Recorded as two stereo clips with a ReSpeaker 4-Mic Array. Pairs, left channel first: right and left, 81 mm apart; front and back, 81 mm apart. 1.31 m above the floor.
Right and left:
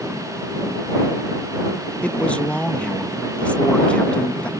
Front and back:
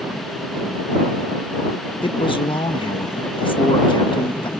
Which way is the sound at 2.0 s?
15° right.